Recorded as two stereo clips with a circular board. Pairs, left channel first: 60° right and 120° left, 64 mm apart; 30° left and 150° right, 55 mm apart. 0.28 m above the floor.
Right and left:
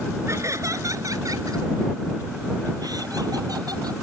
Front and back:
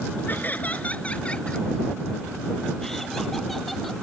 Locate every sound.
0.3 s laughter: 80° left; by 3.9 s 120° left